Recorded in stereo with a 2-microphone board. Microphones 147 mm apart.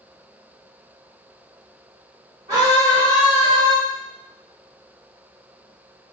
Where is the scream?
25° right (ahead or behind), 2.5 m; by 3.8 s 30° right (ahead or behind), 1.7 m.